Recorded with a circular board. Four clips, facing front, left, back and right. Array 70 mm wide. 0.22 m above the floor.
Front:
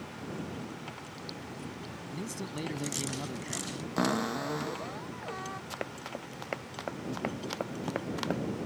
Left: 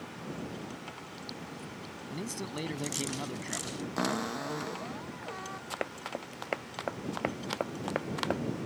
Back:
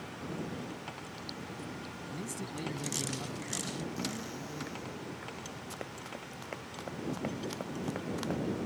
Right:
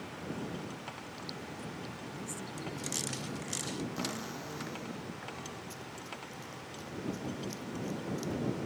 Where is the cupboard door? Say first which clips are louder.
Left 7 dB, front 9 dB; 30° left.